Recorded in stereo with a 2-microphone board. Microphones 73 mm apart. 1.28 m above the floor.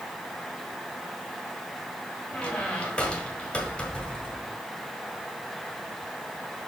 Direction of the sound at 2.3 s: 15° left (ahead or behind).